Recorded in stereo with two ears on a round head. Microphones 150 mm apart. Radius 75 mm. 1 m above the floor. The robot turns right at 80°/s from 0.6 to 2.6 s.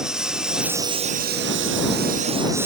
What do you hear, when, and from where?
0.0 s a lawn mower: 5° right (ahead or behind); by 2.7 s 15° right (ahead or behind)